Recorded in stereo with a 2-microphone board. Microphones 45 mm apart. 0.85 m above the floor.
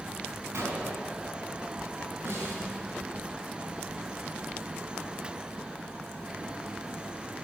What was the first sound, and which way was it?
A gunshot, 85° right.